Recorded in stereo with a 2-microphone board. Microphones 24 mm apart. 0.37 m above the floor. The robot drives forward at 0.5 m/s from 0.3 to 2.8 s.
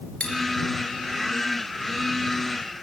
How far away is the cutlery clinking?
About 3 m.